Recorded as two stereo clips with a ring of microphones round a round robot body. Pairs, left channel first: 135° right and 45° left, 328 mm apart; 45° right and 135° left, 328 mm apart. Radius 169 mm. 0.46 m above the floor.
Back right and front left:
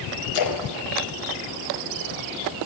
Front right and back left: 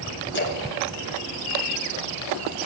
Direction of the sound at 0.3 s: 100° right.